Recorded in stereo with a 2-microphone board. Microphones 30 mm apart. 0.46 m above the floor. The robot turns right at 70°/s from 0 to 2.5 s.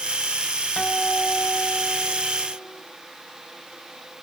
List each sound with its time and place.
0.8 s a guitar: 45° left, 1.7 m; by 2.8 s 165° left, 1.7 m